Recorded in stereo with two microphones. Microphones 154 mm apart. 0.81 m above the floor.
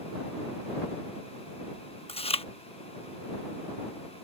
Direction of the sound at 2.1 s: 40° left (ahead or behind).